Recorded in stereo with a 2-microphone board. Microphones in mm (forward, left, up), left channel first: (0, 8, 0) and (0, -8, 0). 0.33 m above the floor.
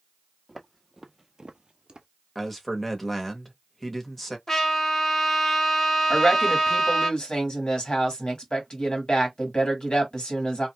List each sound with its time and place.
0.5 s footsteps: 5° left (ahead or behind), 1.1 m; by 2.1 s 55° right (ahead or behind), 0.9 m
2.4 s a man speaking: 10° left (ahead or behind), 0.9 m
4.5 s a trumpet: 25° left (ahead or behind), 1.3 m
6.1 s a woman speaking: 60° left (ahead or behind), 1.7 m